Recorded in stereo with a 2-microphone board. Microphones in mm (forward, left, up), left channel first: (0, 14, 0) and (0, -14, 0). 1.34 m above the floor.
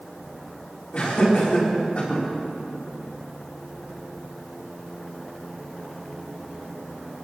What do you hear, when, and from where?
0.9 s laughter: 50° left (ahead or behind), 4.5 m